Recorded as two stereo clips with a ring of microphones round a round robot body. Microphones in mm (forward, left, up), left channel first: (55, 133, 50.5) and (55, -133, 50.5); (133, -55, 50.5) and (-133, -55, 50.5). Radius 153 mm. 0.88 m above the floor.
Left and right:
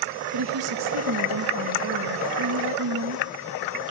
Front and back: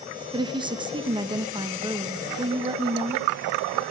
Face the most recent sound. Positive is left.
turn(degrees=-110)